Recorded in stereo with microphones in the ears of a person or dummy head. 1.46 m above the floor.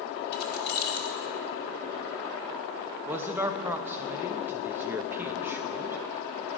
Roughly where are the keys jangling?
Left.